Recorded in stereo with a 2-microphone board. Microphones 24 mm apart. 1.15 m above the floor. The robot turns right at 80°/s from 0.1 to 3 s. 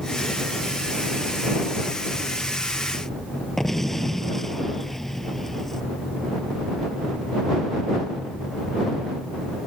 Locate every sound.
3.6 s an explosion: 10° left (ahead or behind)